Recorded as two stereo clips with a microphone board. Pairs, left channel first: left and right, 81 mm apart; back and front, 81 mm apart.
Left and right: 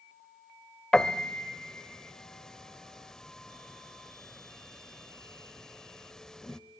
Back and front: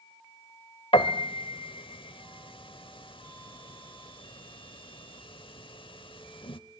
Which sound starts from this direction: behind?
A piano, at 0.9 s.